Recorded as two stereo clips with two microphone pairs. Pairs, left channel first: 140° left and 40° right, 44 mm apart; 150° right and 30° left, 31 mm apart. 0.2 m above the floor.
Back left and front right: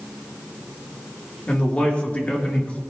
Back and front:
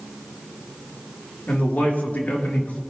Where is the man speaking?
165° right, 3.5 m.